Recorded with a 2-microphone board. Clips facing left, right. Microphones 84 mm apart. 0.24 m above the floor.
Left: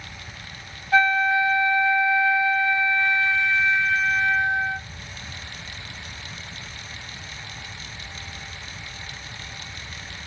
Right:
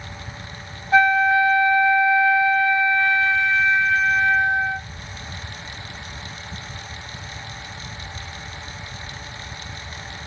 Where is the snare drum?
I don't hear a snare drum.